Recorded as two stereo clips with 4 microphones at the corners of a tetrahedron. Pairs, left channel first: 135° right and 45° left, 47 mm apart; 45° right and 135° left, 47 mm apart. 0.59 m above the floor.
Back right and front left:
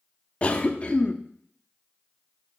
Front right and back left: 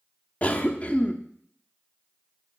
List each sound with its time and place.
0.4 s a cough: 90° right, 0.7 m